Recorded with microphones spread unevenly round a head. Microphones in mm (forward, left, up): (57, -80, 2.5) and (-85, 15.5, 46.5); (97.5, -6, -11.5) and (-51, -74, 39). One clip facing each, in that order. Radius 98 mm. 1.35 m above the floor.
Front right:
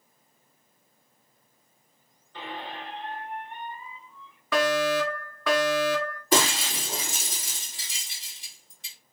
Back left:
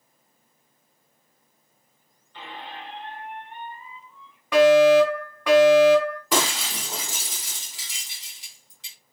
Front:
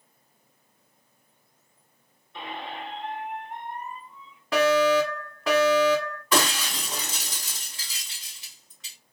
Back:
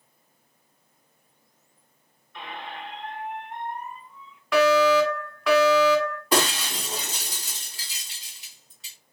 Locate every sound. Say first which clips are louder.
2.3 s a squeak: front right 2 dB, front 2 dB; 40° right, 1.1 m
4.5 s a fire alarm: back left 10 dB, back 2 dB; 60° left, 1.5 m
6.3 s breaking glass: front right 3 dB, even; 150° left, 2.5 m